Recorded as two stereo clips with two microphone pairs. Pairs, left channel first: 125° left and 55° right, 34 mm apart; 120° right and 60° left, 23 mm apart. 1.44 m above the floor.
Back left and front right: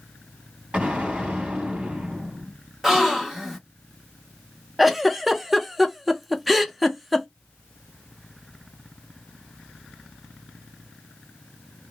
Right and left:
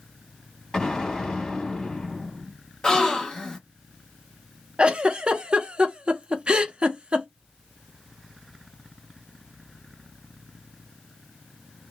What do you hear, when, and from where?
0.7 s an explosion: 75° right, 1.5 m
2.8 s a gasp: 120° right, 0.8 m
4.8 s a giggle: 30° left, 0.5 m